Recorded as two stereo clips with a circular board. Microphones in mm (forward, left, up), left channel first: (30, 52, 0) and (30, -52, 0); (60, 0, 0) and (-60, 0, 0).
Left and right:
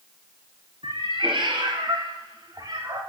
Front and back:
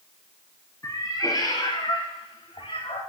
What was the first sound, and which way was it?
A cat meowing, 65° right.